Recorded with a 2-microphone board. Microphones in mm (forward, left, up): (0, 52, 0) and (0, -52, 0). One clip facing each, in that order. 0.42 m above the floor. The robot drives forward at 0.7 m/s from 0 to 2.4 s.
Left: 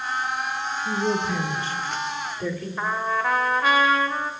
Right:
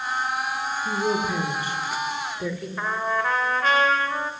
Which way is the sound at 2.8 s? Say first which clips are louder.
Even; 5° left (ahead or behind).